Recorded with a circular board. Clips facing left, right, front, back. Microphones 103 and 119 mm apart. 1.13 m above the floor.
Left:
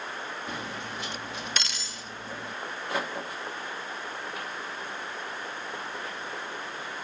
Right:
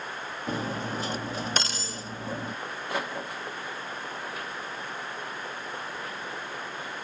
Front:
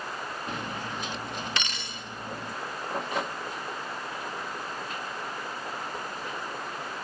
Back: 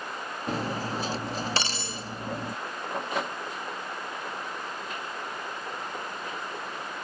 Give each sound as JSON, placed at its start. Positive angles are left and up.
{"t": 0.5, "sound": "cutlery clinking", "azimuth_deg": -135}